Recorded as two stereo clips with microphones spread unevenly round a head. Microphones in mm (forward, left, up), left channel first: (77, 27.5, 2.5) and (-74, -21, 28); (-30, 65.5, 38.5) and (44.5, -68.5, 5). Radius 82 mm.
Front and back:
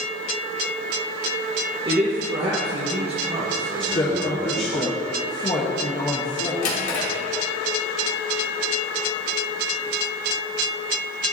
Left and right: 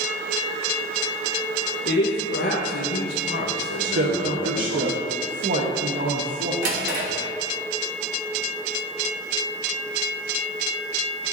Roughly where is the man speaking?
Behind left.